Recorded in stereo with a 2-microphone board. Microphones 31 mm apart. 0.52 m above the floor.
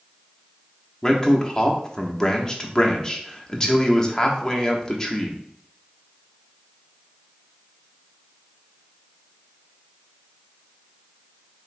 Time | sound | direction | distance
1.0 | a man speaking | 20° left (ahead or behind) | 0.6 m